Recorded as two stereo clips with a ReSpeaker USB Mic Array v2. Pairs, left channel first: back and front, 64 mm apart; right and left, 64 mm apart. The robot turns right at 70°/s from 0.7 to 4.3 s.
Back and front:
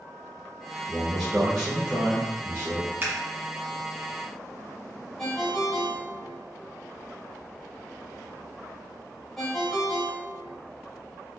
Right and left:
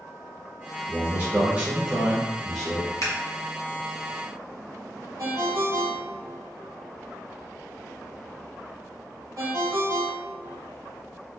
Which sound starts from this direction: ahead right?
Scissors, at 3.0 s.